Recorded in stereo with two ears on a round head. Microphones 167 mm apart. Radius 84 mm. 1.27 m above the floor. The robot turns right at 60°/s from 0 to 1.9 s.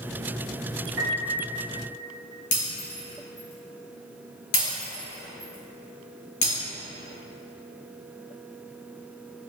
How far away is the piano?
About 1.0 m.